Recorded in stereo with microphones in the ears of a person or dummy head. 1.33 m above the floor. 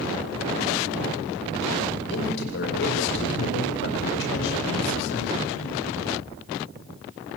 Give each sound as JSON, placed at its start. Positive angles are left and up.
{"t": 2.1, "sound": "a man speaking", "side_deg": 65, "distance_m": 5.0}